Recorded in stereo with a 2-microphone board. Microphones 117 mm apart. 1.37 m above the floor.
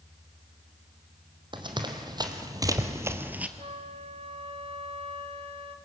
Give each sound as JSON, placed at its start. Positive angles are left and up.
{"t": 1.5, "sound": "running footsteps", "side_deg": -40, "distance_m": 3.0}
{"t": 3.6, "sound": "a flute", "side_deg": -60, "distance_m": 1.7}